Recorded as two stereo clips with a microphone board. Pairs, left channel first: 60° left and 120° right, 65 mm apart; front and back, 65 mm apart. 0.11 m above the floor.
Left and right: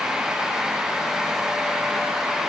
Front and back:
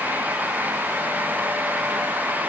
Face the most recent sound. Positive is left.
No sound to turn to.